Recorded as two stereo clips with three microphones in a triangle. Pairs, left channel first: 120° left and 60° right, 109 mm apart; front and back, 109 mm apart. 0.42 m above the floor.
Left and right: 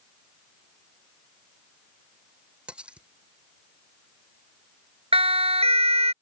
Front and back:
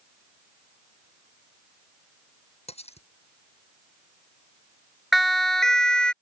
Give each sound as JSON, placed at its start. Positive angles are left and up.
{"t": 2.7, "sound": "cutlery clinking", "azimuth_deg": 20}
{"t": 5.1, "sound": "a siren", "azimuth_deg": -90}